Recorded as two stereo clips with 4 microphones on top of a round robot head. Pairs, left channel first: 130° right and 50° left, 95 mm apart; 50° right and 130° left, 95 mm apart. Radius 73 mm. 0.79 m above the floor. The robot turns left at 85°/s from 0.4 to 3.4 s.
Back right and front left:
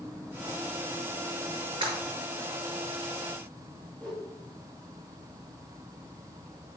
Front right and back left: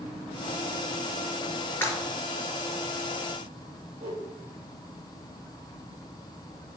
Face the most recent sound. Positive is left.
turn(degrees=150)